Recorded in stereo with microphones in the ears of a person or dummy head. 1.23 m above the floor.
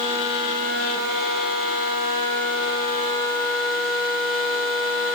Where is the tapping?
No tapping in this recording.